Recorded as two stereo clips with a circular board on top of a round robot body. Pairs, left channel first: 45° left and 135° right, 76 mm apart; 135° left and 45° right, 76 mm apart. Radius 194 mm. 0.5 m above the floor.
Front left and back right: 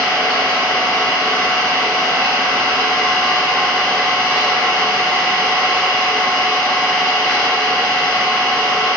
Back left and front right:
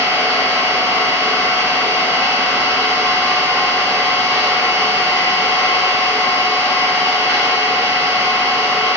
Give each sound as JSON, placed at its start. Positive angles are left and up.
{"t": 0.0, "sound": "an engine running", "azimuth_deg": 125, "distance_m": 1.8}